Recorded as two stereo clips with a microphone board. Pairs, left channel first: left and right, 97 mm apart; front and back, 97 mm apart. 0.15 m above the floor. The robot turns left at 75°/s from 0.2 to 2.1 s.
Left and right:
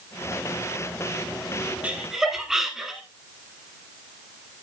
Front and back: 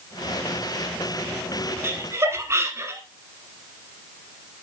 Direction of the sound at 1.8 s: 150° right.